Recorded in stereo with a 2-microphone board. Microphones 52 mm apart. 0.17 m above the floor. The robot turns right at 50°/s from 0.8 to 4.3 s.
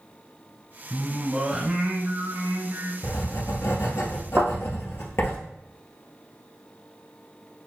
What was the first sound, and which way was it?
Singing, 175° left.